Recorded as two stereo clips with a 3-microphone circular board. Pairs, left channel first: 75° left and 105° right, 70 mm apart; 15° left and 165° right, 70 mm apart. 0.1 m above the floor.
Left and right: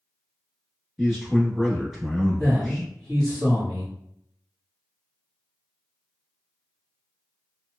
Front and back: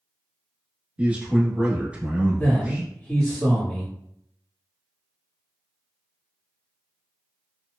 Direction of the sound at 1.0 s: 175° right.